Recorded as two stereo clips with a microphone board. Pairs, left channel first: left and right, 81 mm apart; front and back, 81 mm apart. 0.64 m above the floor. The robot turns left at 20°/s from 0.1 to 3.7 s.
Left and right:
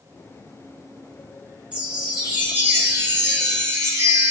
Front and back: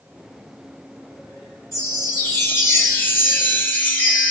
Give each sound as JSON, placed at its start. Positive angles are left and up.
{"t": 1.7, "sound": "a chime", "azimuth_deg": -20, "distance_m": 1.4}